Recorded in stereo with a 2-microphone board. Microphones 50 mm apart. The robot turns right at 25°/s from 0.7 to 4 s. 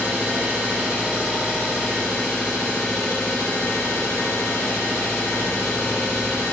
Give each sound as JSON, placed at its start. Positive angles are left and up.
{"t": 0.0, "sound": "an engine running", "azimuth_deg": -15, "distance_m": 2.5}